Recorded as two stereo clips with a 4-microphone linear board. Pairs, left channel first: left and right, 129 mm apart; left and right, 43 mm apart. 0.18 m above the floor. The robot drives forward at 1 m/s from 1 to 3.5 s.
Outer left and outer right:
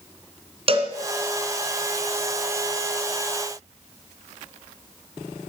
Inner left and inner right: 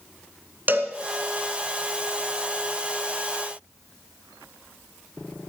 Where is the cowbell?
45° right (ahead or behind), 1.7 m.